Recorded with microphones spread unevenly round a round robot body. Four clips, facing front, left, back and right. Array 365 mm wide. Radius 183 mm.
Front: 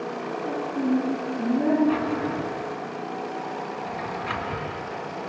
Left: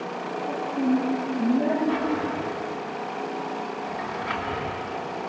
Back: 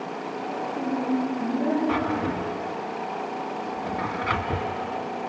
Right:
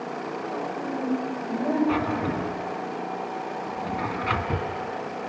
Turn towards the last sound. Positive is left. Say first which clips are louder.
# even, even
turn(degrees=-120)